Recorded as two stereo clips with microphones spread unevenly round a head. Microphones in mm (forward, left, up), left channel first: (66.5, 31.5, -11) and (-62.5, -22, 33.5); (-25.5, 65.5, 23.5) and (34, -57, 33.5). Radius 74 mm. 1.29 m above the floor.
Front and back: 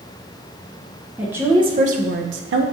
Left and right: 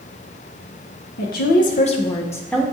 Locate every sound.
1.2 s a woman speaking: 115° left, 0.7 m; by 2.6 s 160° right, 0.7 m